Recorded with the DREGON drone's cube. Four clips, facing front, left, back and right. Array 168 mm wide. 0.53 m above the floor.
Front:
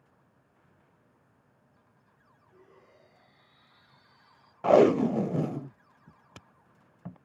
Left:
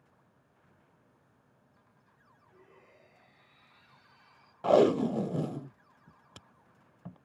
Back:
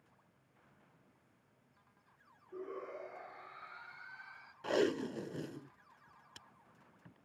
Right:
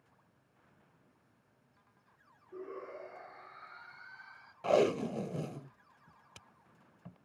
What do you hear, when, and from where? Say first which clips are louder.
2.5 s a shout: right 17 dB, back 14 dB; 130° right; by 4.5 s 135° right
4.6 s tape being pulled: left 6 dB, front 14 dB; 20° left